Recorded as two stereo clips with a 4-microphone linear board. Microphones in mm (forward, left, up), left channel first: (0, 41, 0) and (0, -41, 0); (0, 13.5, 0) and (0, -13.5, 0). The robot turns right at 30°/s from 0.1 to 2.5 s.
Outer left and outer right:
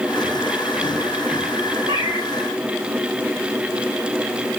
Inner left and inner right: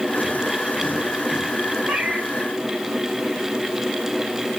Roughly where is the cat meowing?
Right.